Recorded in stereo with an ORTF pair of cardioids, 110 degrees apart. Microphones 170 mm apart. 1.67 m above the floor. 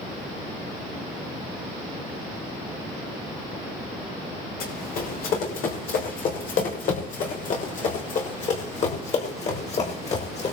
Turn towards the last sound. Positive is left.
turn(degrees=40)